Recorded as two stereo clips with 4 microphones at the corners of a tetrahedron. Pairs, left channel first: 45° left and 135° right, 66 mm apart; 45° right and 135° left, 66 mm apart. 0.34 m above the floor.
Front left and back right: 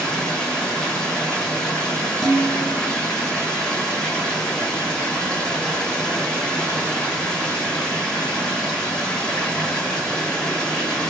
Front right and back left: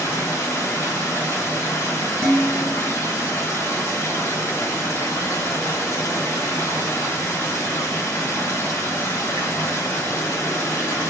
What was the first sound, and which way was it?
Running water, 30° right.